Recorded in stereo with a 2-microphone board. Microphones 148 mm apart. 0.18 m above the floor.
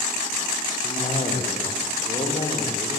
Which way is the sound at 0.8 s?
45° left (ahead or behind).